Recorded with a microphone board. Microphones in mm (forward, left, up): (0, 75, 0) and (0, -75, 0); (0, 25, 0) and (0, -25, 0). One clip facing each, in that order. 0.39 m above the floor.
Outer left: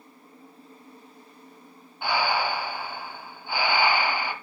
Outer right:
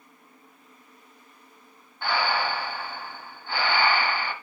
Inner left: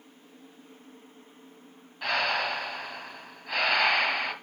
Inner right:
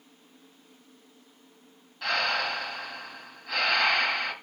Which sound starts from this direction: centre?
Breathing, at 2.0 s.